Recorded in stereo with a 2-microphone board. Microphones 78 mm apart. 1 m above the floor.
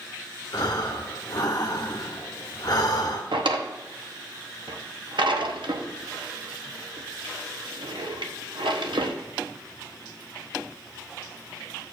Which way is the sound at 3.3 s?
85° right.